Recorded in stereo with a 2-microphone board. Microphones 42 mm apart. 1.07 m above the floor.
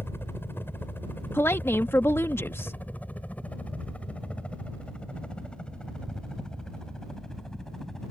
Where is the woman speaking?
70° left (ahead or behind).